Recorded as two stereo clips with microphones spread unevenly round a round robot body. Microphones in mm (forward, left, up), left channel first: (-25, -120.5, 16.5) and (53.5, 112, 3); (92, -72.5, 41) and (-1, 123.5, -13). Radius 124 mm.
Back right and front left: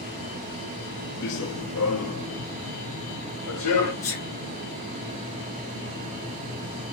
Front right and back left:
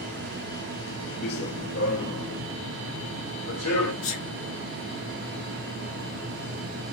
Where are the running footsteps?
75° right, 0.5 m; by 3.9 s 90° right, 2 m.